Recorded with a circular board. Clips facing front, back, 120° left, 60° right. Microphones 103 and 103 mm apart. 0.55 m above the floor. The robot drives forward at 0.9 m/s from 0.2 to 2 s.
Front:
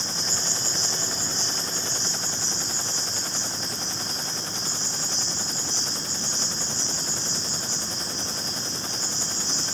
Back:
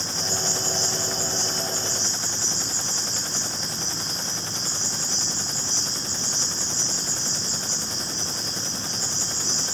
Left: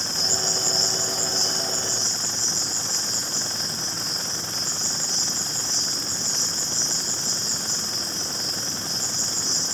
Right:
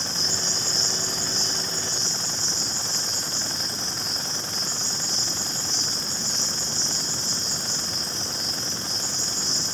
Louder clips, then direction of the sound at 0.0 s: Back 3 dB, left 2 dB; 170° left.